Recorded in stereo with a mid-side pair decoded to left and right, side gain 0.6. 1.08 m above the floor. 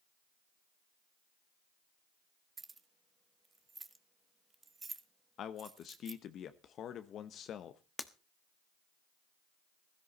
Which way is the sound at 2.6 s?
25° right.